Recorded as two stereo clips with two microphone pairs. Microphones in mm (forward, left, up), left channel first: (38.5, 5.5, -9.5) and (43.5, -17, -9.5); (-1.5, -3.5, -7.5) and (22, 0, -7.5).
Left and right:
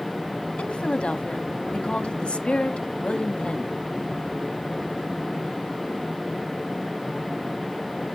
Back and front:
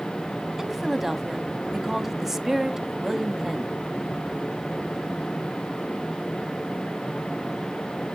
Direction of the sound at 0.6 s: 80° left.